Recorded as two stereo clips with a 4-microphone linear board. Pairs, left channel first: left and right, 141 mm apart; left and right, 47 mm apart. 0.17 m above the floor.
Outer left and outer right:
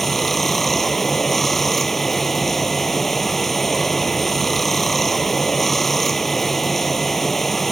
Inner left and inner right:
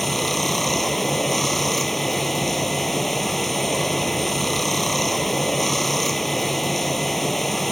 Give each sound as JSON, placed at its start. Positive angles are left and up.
{"t": 0.0, "sound": "running water", "side_deg": 0}